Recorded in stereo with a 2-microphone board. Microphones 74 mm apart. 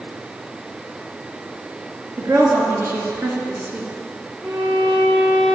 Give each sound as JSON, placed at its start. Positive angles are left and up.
{"t": 2.2, "sound": "a woman speaking", "side_deg": -45, "distance_m": 3.0}
{"t": 4.4, "sound": "a violin", "side_deg": -70, "distance_m": 4.5}